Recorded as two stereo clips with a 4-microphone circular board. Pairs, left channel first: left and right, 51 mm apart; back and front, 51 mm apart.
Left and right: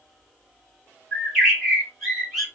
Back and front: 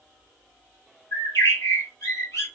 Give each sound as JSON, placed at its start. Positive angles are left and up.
{"t": 1.1, "sound": "a bird", "azimuth_deg": 175, "distance_m": 2.5}